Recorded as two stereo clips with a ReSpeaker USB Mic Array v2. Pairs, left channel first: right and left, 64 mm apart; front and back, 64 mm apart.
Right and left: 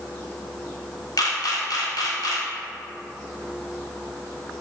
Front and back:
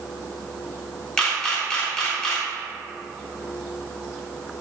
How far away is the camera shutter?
About 0.7 m.